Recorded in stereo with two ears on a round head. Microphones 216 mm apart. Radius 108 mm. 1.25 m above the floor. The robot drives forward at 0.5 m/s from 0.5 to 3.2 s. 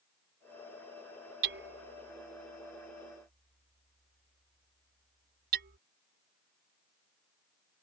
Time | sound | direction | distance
1.4 | hammering | 55° right (ahead or behind) | ?